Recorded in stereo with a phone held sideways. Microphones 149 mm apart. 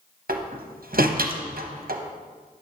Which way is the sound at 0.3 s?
75° right (ahead or behind).